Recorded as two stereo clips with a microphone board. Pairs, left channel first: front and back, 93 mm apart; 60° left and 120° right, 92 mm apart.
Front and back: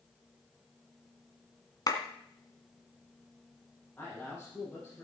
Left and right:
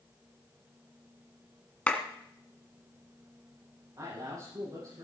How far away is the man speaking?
About 7 m.